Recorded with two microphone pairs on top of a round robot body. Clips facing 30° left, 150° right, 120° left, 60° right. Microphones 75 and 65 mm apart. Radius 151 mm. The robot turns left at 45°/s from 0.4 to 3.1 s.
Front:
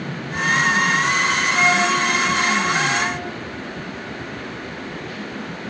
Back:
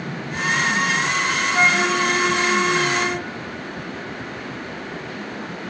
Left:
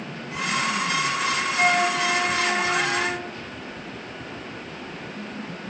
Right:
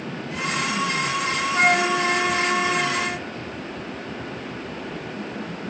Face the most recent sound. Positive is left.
turn(degrees=-170)